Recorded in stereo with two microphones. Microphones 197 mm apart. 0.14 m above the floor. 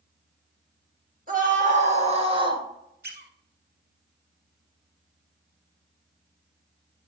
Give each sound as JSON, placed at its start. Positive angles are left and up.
{"t": 1.3, "sound": "a scream", "side_deg": -45, "distance_m": 2.0}
{"t": 3.0, "sound": "a squeak", "side_deg": -60, "distance_m": 1.6}